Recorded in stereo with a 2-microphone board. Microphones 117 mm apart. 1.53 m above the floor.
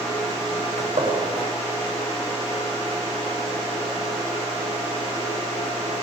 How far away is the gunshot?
About 6 m.